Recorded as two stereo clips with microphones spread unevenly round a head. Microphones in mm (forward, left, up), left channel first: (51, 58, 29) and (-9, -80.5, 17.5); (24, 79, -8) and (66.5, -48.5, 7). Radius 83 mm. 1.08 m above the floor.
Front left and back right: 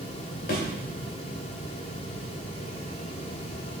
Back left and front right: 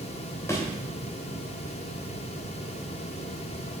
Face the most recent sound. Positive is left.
turn(degrees=40)